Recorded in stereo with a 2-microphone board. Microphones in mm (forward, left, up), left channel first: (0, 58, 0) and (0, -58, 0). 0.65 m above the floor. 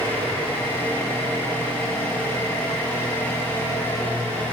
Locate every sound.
0.0 s an engine running: 20° left (ahead or behind), 3 m